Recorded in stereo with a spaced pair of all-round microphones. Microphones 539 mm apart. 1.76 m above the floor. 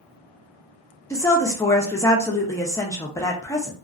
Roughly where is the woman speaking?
Centre.